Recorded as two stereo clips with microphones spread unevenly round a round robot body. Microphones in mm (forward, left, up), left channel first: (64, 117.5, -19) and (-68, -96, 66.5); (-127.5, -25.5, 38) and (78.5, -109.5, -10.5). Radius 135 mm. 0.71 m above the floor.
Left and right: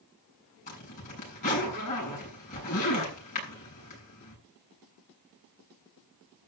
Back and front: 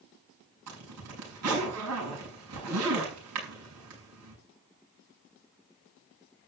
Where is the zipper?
Straight ahead, 7 m.